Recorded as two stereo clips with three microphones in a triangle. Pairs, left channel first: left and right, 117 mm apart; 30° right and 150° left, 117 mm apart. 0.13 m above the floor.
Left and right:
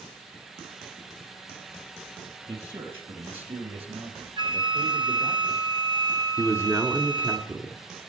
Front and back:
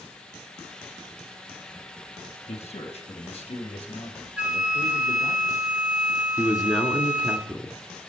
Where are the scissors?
No scissors in this recording.